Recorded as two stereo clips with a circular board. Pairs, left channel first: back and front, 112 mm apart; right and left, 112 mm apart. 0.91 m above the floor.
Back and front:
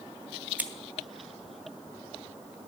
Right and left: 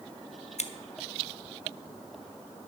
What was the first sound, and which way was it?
Scissors, 75° right.